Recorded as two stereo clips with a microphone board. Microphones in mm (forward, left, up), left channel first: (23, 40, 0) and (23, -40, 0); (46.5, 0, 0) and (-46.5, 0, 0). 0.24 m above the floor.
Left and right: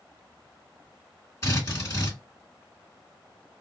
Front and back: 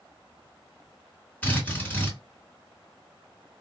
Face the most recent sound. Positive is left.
turn(degrees=65)